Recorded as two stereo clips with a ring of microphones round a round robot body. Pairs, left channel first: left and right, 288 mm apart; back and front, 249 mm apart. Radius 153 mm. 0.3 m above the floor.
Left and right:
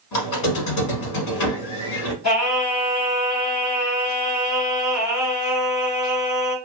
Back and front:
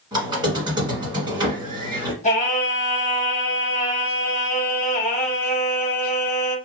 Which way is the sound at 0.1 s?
75° left.